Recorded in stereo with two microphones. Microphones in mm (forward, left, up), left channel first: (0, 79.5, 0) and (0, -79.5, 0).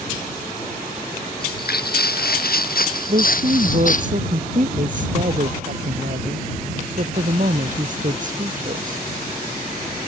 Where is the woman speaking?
55° right (ahead or behind).